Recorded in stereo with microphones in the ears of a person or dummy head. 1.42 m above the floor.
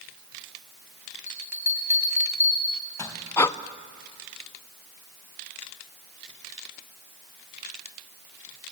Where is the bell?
15° left (ahead or behind), 3 m.